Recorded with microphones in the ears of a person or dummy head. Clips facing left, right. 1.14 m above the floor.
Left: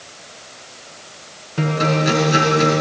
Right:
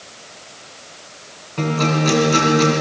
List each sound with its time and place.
1.6 s a guitar: 10° left (ahead or behind), 4 m